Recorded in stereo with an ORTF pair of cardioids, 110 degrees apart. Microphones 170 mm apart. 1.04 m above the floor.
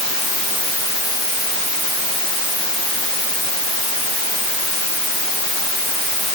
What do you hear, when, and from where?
Only background noise.